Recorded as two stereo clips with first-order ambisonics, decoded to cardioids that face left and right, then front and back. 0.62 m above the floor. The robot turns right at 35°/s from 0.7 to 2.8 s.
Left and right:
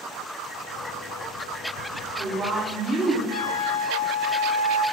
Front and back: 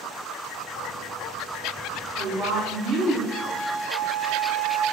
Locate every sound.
1.9 s a woman speaking: 170° right, 1.4 m; by 3.2 s 140° right, 1.4 m
3.3 s a flute: 100° left, 1.2 m